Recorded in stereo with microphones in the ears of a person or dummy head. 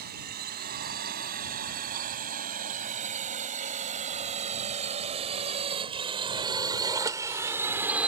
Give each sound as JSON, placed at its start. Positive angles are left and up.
{"t": 0.0, "sound": "a drone", "side_deg": -40}